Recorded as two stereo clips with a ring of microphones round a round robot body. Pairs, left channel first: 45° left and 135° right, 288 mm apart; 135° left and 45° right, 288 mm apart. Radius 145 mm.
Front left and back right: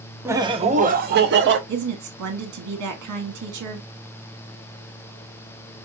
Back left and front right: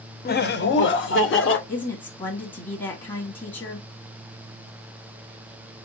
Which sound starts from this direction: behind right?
A woman speaking, at 1.7 s.